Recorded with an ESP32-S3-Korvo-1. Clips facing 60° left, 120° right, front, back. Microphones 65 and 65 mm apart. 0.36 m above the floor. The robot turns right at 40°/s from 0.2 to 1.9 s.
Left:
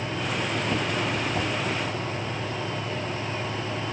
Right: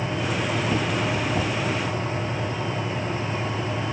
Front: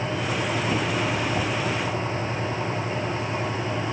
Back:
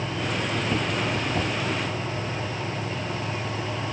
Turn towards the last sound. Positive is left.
No sound to turn to.